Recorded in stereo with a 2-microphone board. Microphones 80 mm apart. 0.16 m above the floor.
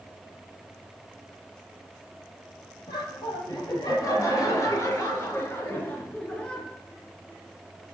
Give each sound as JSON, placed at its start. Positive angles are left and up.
{"t": 2.9, "sound": "laughter", "side_deg": 55, "distance_m": 4.5}